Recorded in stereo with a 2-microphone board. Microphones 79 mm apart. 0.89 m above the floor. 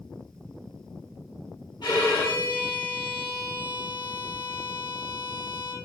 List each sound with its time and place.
1.8 s a violin: 65° left (ahead or behind), 5 m